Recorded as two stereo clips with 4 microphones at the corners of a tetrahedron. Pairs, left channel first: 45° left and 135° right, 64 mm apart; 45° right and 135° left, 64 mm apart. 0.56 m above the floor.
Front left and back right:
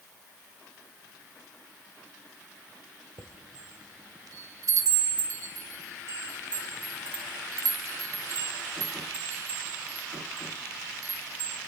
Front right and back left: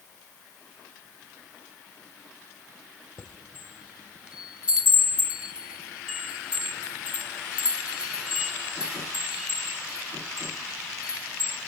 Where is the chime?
150° right, 1.9 m.